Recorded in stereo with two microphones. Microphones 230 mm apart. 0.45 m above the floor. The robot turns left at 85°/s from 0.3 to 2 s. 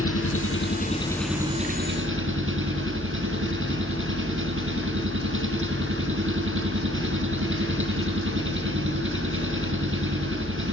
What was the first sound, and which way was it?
An engine running, 80° left.